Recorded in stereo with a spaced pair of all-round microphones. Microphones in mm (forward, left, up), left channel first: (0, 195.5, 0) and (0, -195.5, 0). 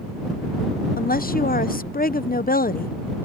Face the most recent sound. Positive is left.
turn(degrees=20)  # may be behind; listen again after turning